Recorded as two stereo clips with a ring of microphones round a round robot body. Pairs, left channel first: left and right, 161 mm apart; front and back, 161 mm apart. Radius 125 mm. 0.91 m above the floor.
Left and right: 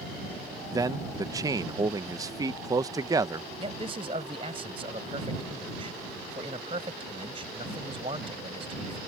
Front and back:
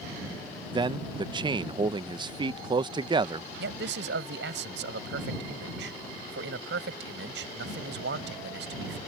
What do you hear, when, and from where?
0.7 s a man speaking: 140° right
3.6 s a man speaking: 155° right